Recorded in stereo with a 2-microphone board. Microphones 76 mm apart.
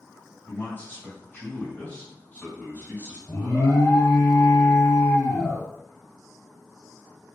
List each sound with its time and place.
0.5 s a man speaking: 30° left (ahead or behind), 1.7 m
3.3 s an alarm: 50° left (ahead or behind), 1.6 m